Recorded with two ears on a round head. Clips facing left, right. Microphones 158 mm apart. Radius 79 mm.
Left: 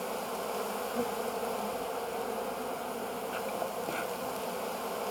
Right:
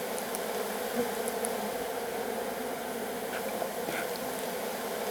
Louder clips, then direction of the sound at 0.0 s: Right 1 dB; 10° right (ahead or behind).